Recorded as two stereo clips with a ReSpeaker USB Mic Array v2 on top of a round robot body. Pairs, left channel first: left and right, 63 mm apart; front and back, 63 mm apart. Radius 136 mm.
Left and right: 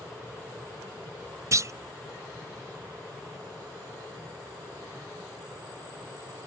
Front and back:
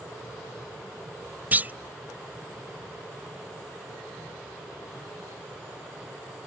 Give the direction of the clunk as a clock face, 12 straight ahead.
4 o'clock.